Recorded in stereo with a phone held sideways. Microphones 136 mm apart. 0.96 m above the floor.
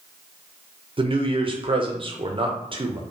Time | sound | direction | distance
1.0 | a man speaking | 40° right (ahead or behind) | 0.5 m